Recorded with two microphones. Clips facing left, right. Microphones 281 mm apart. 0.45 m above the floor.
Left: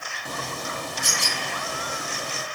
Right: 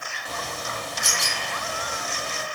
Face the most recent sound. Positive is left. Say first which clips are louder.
# left 1 dB
turn(degrees=55)  # may be behind; listen again after turning